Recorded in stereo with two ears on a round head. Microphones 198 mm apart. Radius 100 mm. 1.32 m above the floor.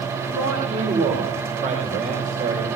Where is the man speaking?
30° right (ahead or behind), 5 m; by 2.7 s 40° right (ahead or behind), 6 m.